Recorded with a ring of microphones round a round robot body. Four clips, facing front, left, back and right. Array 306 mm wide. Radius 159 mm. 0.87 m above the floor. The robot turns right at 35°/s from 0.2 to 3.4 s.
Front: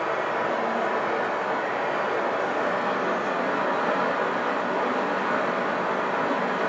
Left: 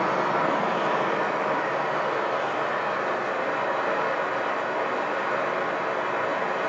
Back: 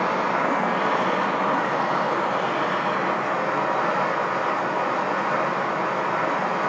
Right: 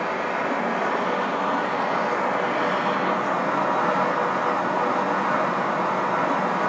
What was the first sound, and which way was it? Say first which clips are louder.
Running water: left 2 dB, back 3 dB; 150° left.